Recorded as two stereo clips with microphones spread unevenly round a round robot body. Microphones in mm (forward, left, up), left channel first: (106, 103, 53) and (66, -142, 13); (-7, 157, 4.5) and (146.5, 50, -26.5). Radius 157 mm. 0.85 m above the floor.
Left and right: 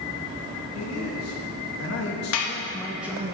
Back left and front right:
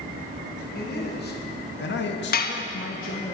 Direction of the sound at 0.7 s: 110° left.